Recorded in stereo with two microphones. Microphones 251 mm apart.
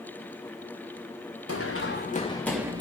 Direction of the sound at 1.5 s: 65° left (ahead or behind).